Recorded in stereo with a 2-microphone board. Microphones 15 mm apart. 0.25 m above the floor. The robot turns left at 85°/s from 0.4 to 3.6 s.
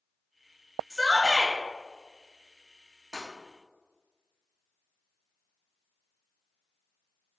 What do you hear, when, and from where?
0.9 s a shout: 5° right (ahead or behind), 0.9 m; by 1.6 s 20° right (ahead or behind), 0.9 m
3.1 s breaking glass: 65° right (ahead or behind), 1.9 m; by 3.3 s 75° right (ahead or behind), 1.9 m